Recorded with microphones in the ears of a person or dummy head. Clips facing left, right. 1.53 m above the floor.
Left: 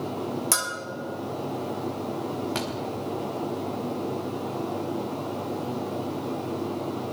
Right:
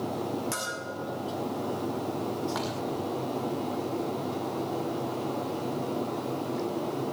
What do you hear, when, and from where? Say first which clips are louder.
0.5 s a bell: left 2 dB; 50° left (ahead or behind), 2 m
2.5 s a thud: left 2 dB; 20° left (ahead or behind), 1.5 m